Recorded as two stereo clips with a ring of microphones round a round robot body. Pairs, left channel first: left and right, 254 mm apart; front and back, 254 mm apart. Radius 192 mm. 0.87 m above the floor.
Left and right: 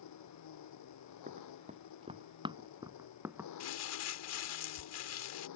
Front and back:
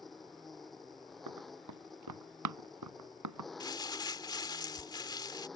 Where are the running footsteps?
160° right; by 3.5 s 175° right.